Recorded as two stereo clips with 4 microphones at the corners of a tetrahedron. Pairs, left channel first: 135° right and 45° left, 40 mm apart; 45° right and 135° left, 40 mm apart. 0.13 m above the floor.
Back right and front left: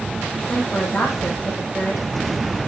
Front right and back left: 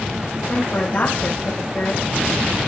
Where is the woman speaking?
80° right, 7 m.